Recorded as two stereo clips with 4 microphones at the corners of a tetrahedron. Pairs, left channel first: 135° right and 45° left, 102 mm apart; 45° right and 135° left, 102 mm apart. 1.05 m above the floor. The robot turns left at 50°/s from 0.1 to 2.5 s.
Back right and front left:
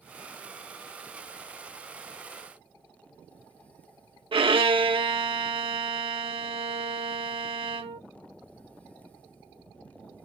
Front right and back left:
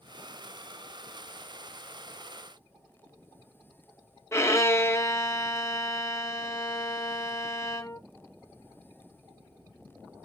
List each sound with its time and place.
4.3 s a violin: 15° left, 0.8 m